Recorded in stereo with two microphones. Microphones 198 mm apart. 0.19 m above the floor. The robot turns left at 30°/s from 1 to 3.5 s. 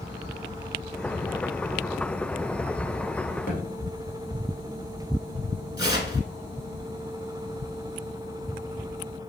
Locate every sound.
3.5 s a thud: 50° left (ahead or behind), 1.4 m
5.8 s tearing paper: 20° right (ahead or behind), 0.6 m